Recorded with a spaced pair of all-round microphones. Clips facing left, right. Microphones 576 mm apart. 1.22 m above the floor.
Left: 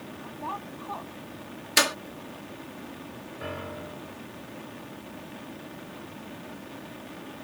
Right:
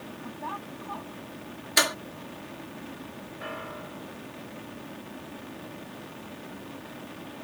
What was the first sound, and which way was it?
A woman speaking, 40° right (ahead or behind).